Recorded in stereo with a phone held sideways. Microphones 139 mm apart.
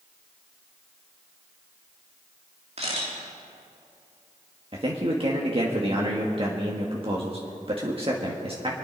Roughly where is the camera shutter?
Right.